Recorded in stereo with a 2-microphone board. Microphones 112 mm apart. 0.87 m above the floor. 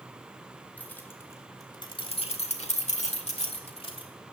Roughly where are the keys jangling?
Centre.